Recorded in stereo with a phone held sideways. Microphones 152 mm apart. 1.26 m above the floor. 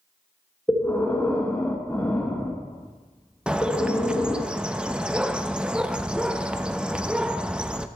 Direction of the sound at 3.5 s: 5° right (ahead or behind).